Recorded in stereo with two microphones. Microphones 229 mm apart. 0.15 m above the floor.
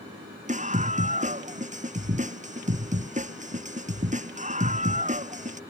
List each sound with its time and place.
0.5 s a scream: 35° right (ahead or behind)